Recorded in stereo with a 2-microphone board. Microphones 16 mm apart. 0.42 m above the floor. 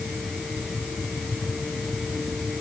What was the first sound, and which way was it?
Only background noise.